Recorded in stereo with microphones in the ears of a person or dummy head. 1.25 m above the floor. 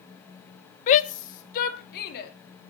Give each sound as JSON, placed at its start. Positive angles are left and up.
{"t": 0.9, "sound": "a shout", "side_deg": 35, "distance_m": 1.0}